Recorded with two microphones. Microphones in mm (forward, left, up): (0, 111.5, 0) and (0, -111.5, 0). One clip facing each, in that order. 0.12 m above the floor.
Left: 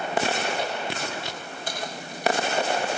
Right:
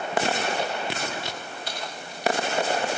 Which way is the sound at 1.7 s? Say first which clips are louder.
Left 2 dB; 50° left (ahead or behind).